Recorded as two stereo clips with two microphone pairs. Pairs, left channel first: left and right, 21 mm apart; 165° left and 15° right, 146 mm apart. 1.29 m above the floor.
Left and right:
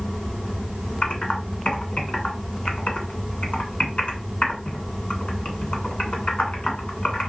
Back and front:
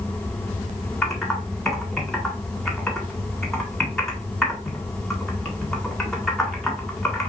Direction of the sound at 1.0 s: 75° left.